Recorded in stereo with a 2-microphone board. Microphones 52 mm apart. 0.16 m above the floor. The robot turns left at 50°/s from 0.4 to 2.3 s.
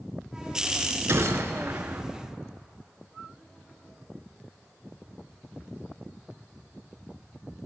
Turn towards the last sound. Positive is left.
turn(degrees=-135)